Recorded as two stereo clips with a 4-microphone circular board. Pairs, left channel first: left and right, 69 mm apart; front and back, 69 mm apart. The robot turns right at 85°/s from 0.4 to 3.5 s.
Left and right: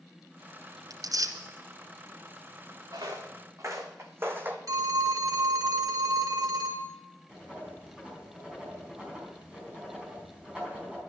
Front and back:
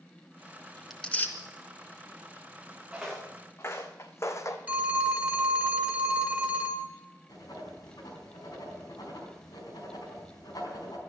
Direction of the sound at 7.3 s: 15° right.